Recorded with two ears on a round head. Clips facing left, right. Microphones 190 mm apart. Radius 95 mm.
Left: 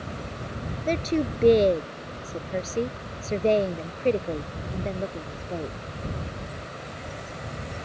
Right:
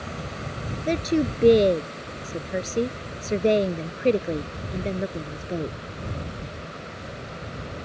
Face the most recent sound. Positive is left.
turn(degrees=-25)  # may be behind; listen again after turning